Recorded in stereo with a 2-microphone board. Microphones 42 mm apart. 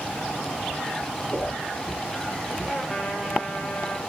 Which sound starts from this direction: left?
A whoosh, at 1.3 s.